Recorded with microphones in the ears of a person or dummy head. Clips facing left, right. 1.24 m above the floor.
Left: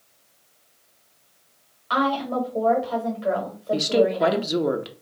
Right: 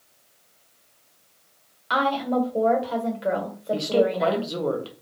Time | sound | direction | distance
1.9 | a woman speaking | 25° right (ahead or behind) | 1.4 m
3.7 | a woman speaking | 20° left (ahead or behind) | 0.7 m